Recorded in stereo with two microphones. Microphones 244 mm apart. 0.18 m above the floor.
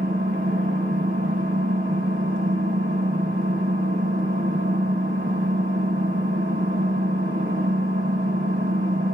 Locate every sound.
0.0 s an engine running: 60° right (ahead or behind), 2 m